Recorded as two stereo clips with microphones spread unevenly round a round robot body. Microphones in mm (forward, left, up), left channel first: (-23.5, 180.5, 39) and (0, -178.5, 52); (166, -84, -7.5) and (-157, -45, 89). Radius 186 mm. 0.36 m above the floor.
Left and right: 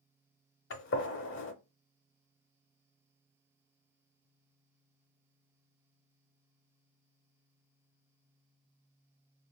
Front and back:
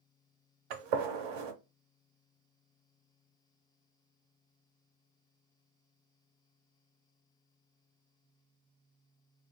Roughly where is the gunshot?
Behind left.